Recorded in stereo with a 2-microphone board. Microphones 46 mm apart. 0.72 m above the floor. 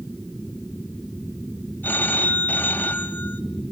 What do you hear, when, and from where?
1.8 s a phone ringing: 50° left (ahead or behind), 2.5 m